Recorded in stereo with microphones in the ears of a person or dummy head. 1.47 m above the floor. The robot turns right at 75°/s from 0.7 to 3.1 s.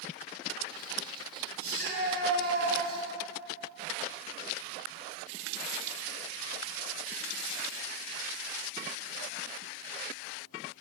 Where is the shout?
130° right, 8 m; by 3.0 s 25° right, 8 m.